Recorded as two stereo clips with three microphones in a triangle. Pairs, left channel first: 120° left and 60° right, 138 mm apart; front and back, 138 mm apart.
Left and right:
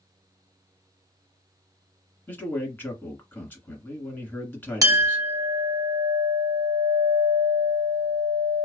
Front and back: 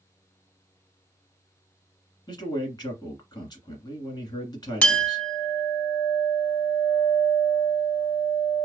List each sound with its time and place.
2.3 s a man speaking: 50° left, 1.6 m
4.8 s a clink: 65° right, 0.6 m